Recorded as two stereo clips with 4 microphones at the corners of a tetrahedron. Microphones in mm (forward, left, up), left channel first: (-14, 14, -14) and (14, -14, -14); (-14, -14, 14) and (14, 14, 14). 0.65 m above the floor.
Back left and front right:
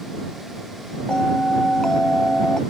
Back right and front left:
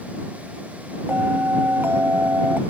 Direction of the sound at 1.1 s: 60° left.